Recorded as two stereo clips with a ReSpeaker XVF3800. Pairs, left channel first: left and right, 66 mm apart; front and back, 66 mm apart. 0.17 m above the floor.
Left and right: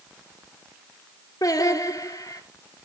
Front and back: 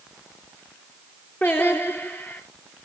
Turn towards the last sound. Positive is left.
turn(degrees=60)